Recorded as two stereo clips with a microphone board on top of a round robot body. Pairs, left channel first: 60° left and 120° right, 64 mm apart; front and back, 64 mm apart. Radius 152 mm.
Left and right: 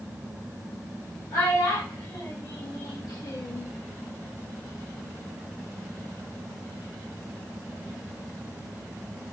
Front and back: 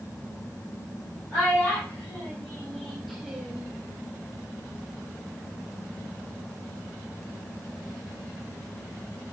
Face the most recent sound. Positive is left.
turn(degrees=115)